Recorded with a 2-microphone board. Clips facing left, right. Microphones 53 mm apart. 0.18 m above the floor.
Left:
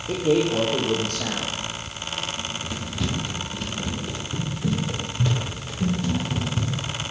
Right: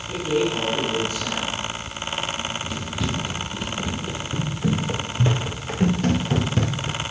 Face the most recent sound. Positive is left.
turn(degrees=-75)  # may be behind; listen again after turning